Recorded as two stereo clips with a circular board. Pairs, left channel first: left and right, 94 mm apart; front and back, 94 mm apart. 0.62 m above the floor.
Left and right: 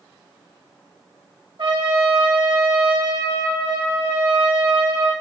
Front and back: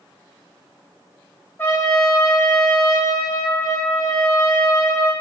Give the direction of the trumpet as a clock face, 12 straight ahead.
2 o'clock.